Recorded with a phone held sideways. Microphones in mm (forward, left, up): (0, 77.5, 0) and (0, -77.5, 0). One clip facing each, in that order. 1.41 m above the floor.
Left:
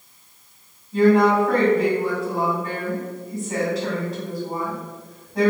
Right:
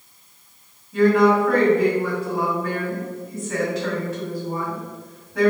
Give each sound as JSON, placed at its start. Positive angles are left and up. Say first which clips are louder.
{"t": 0.9, "sound": "a woman speaking", "louder": "even", "side_deg": 30, "distance_m": 2.0}